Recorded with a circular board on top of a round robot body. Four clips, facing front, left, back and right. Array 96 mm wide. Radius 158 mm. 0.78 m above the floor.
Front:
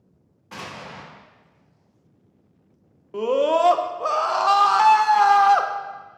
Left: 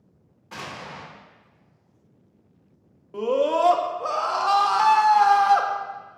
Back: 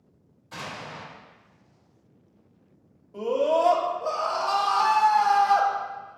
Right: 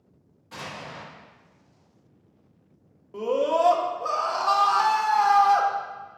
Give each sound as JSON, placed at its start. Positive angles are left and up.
{"t": 0.5, "sound": "an explosion", "azimuth_deg": 25, "distance_m": 1.2}
{"t": 3.1, "sound": "a scream", "azimuth_deg": 10, "distance_m": 0.5}